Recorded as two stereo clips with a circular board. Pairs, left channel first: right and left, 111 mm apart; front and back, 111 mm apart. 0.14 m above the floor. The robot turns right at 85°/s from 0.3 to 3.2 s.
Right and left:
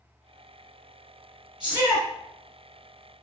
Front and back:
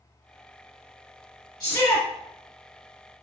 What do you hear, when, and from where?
1.6 s a shout: 10° left, 1.6 m; by 2.1 s 50° left, 1.6 m